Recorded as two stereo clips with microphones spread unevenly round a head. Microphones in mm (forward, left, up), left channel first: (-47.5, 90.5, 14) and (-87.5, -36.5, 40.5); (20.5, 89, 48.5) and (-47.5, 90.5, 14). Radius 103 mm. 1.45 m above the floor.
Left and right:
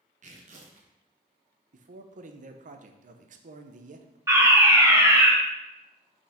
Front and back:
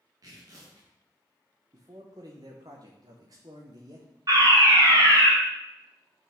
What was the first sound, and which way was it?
Tearing paper, 130° right.